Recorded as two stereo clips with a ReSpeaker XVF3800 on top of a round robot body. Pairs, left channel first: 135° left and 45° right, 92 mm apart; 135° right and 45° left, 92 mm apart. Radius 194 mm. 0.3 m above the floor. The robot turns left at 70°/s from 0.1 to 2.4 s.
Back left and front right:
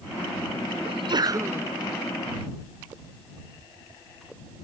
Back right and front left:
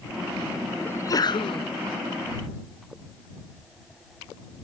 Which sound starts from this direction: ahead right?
A sneeze, at 0.8 s.